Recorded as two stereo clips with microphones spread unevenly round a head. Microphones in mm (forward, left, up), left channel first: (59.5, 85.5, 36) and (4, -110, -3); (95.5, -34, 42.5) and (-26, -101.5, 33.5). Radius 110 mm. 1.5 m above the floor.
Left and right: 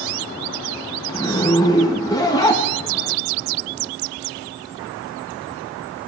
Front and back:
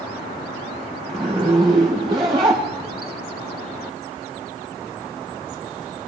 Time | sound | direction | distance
1.1 | a zipper | 140° left | 1.0 m